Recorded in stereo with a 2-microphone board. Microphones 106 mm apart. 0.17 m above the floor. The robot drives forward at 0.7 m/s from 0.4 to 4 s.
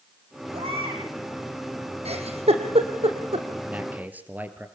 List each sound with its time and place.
0.5 s a baby crying: 65° right (ahead or behind), 7 m
2.0 s a giggle: 85° right, 3 m; by 3.5 s 65° right (ahead or behind), 3 m
3.6 s a man speaking: 15° right (ahead or behind), 3 m